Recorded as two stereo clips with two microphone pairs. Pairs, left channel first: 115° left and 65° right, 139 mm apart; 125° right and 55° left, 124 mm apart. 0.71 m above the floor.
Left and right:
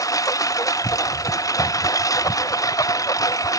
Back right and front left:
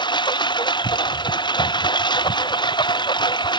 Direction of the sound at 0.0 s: Straight behind.